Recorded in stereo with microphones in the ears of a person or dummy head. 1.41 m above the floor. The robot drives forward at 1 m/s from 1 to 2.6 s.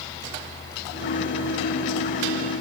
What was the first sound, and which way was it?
Only background noise.